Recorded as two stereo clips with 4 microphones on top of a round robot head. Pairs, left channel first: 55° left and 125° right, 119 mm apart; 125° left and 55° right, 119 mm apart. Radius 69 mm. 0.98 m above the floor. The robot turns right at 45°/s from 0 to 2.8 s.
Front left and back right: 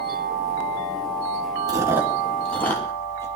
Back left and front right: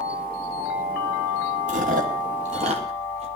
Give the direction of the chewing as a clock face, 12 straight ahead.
2 o'clock.